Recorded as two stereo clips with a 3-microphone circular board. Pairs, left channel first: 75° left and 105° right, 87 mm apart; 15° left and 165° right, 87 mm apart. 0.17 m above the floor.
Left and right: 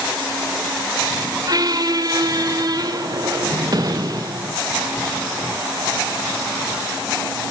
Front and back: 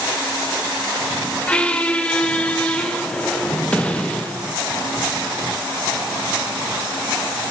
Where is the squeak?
60° right, 1.1 m.